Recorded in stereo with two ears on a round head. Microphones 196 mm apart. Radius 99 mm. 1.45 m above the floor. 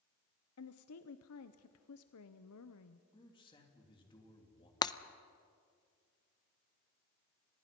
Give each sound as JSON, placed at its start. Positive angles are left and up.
{"t": 0.6, "sound": "a woman speaking", "side_deg": 75, "distance_m": 0.8}
{"t": 3.1, "sound": "a man speaking", "side_deg": 25, "distance_m": 3.0}
{"t": 4.8, "sound": "breaking glass", "side_deg": 20, "distance_m": 0.5}